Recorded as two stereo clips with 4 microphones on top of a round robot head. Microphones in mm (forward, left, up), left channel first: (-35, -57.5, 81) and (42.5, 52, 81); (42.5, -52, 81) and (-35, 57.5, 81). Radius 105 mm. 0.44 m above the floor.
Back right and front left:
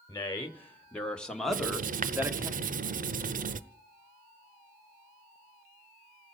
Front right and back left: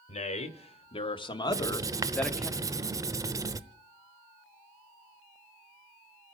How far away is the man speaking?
About 2 m.